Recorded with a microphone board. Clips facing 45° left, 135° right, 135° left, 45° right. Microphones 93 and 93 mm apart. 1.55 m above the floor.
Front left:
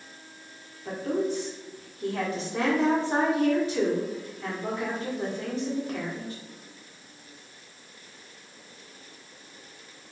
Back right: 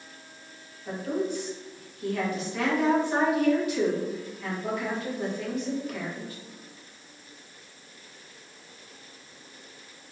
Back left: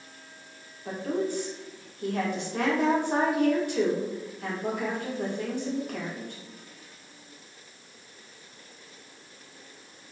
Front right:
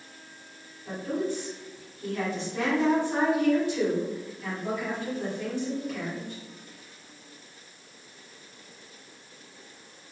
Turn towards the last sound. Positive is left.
turn(degrees=105)